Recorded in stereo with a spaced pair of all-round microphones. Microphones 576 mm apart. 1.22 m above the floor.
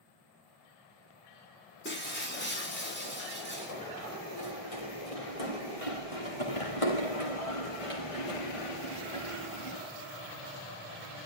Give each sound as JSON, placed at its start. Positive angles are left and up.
{"t": 1.9, "sound": "breaking glass", "side_deg": 20, "distance_m": 7.5}
{"t": 3.7, "sound": "running footsteps", "side_deg": 80, "distance_m": 8.0}